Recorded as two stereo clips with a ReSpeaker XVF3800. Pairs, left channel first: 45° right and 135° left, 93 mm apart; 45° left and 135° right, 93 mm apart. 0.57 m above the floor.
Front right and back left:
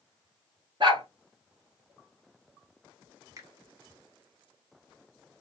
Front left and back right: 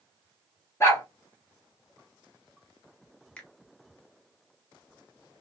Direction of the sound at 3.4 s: 115° left.